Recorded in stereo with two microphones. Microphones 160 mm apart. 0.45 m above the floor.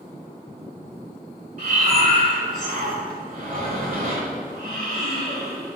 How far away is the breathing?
About 1.6 m.